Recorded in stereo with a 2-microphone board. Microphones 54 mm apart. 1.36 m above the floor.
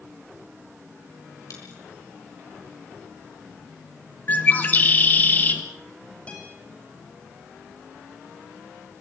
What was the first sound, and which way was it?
A dropped coin, 70° left (ahead or behind).